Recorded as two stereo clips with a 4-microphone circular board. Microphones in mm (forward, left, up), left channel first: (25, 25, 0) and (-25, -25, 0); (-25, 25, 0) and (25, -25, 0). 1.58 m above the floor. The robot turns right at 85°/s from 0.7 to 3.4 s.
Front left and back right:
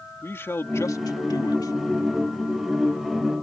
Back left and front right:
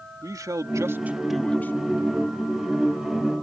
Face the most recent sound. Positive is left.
turn(degrees=-140)